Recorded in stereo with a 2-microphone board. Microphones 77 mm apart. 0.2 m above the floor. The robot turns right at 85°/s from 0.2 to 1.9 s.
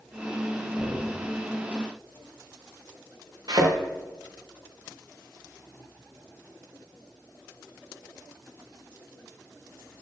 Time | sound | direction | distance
0.8 | knocking | 115° left | 6 m
3.5 | a thud | 60° right (ahead or behind) | 5.5 m